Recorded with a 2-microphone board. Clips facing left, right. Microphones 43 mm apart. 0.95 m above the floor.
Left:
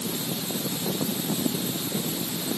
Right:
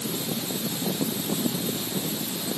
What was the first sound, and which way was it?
Only background noise.